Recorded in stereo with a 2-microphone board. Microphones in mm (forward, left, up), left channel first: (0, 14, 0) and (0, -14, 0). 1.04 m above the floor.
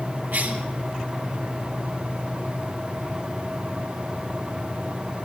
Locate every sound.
0.3 s a cough: 70° right (ahead or behind), 1.3 m